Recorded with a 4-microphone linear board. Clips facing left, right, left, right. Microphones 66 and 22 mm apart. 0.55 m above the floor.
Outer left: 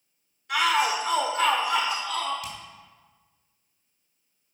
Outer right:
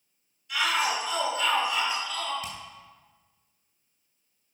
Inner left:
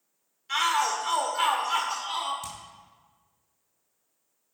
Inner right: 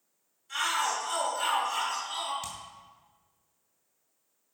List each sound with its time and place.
0.5 s a shout: 55° left (ahead or behind), 1.7 m
2.4 s hammering: 25° right (ahead or behind), 3.5 m